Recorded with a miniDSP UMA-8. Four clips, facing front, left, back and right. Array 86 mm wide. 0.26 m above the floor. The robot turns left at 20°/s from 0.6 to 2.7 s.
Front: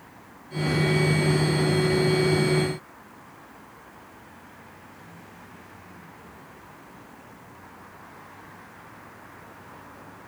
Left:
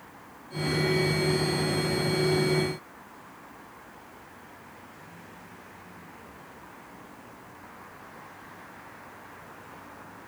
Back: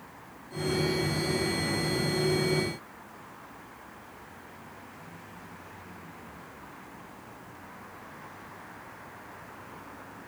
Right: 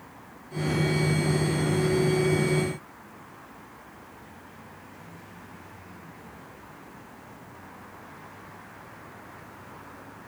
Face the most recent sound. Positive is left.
No sound to turn to.